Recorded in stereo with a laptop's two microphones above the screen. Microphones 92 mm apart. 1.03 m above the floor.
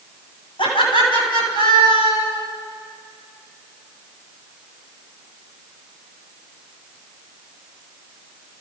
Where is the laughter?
65° left (ahead or behind), 9.5 m; by 2.4 s 60° left (ahead or behind), 9 m.